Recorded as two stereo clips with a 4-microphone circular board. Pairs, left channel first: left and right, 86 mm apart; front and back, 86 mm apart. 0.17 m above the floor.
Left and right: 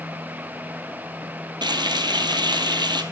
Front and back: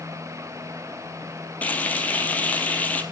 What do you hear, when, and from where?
1.6 s frying: 70° right, 1.6 m